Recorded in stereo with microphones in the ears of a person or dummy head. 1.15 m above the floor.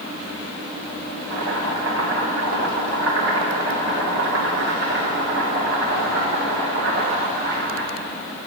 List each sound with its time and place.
1.3 s chopping: 70° right (ahead or behind), 1.4 m